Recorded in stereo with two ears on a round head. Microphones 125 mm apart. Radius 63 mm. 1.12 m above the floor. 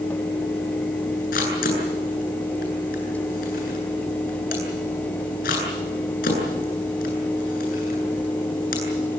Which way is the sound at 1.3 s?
75° left (ahead or behind).